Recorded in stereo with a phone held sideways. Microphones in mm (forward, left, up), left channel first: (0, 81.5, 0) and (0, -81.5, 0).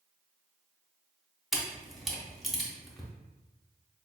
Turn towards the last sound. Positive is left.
turn(degrees=0)  # may be behind; listen again after turning